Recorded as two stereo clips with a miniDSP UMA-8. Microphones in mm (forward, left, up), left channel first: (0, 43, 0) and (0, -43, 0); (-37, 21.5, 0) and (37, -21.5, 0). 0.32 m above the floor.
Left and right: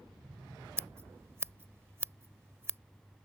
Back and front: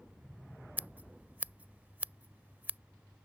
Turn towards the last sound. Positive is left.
turn(degrees=-75)